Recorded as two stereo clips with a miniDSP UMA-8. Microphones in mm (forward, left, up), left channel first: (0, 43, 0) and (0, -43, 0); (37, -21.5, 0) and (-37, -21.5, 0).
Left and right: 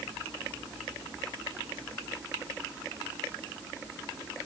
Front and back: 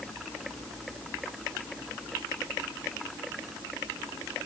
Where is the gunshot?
I don't hear a gunshot.